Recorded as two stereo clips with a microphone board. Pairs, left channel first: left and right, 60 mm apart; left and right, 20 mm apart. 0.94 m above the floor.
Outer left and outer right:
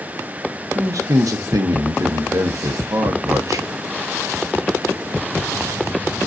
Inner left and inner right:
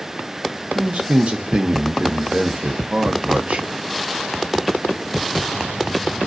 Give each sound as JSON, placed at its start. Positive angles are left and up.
{"t": 0.8, "sound": "a man speaking", "side_deg": -75, "distance_m": 0.8}